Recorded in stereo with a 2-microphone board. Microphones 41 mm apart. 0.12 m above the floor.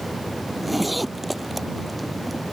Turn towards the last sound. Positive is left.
turn(degrees=0)  # may be behind; listen again after turning